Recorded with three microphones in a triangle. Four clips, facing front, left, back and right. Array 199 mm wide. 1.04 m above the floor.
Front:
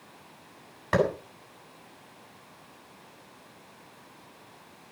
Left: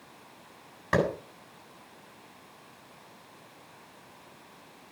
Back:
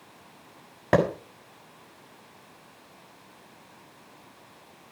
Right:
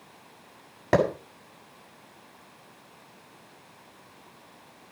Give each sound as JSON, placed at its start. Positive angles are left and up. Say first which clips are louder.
{"t": 0.9, "sound": "a clap", "louder": "right 4 dB, back 3 dB", "azimuth_deg": -145, "distance_m": 7.0}